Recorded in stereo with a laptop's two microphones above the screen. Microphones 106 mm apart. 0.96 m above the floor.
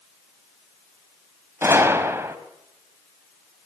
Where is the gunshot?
25° right (ahead or behind), 3 m.